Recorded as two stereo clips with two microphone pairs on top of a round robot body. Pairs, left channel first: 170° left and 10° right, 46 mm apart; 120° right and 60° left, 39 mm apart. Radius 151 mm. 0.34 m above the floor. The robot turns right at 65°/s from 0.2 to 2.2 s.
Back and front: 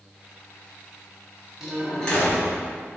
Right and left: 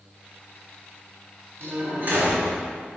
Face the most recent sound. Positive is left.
turn(degrees=110)